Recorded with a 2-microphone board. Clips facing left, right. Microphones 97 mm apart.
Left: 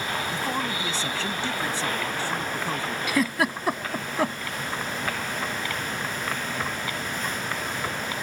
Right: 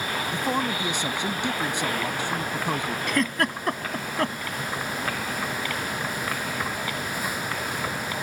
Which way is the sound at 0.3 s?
15° right (ahead or behind).